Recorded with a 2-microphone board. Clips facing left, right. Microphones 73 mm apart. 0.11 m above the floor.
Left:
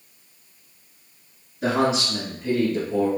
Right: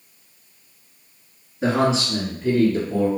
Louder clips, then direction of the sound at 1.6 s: Right 2 dB; 30° right (ahead or behind).